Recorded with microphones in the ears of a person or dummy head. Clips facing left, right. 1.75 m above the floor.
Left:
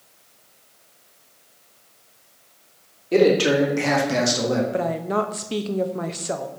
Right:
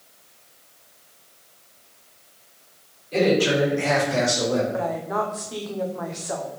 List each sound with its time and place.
3.1 s a man speaking: 70° left (ahead or behind), 2.5 m; by 4.6 s 85° left, 2 m
4.7 s a woman speaking: 40° left (ahead or behind), 0.7 m